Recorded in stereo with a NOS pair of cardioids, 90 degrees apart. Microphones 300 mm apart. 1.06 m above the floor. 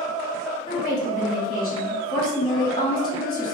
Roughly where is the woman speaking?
Ahead left.